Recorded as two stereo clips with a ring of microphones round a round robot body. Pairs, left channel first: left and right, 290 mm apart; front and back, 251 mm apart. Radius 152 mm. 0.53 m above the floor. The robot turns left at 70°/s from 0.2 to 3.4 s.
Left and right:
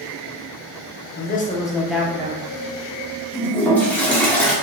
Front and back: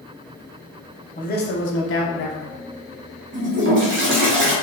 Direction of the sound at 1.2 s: 50° left.